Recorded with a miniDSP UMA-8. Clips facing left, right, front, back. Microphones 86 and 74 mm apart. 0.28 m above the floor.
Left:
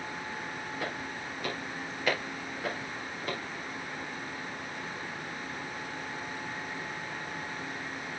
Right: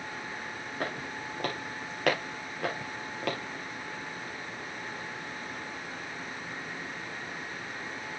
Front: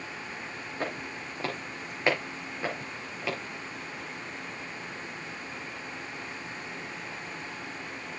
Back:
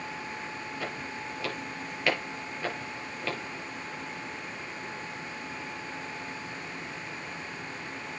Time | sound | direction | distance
0.8 | footsteps | 50° right | 7 m